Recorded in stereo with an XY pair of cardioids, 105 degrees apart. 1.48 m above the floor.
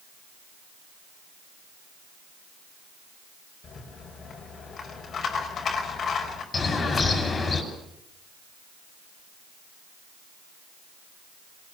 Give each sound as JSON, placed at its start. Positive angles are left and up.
{"t": 3.6, "sound": "a rattle", "azimuth_deg": 50, "distance_m": 5.5}
{"t": 6.5, "sound": "a bird", "azimuth_deg": 40, "distance_m": 6.0}